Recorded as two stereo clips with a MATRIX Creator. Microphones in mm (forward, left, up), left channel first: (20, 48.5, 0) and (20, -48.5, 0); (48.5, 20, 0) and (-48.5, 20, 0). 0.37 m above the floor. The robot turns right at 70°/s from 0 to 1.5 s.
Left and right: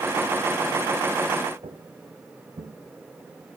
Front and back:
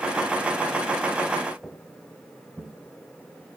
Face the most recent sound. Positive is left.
turn(degrees=-110)